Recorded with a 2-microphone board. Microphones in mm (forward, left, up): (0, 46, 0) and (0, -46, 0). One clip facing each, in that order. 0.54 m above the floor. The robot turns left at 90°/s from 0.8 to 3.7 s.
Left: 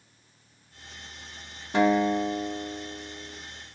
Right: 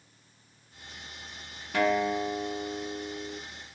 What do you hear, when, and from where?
1.7 s a guitar: 45° left, 0.8 m; by 3.4 s 105° right, 0.8 m